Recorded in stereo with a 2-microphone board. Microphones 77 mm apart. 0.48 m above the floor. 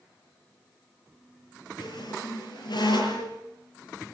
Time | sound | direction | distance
1.8 | a squeak | 80° left | 7 m